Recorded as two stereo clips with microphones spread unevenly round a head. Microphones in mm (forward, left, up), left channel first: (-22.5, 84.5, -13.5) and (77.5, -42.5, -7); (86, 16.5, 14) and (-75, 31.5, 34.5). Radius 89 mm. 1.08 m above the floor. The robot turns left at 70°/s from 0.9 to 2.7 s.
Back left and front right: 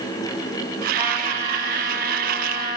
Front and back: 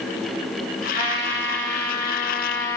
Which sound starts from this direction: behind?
A trumpet, at 0.9 s.